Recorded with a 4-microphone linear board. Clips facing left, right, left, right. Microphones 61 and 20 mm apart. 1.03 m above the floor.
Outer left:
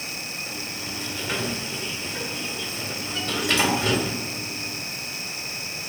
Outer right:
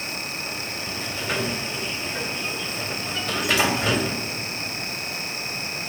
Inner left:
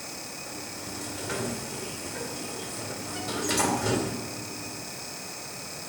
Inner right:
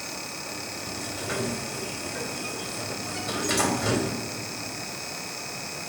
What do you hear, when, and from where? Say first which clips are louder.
0.5 s a sliding door: outer right 2 dB, inner right 3 dB; 5° right (ahead or behind), 2.5 m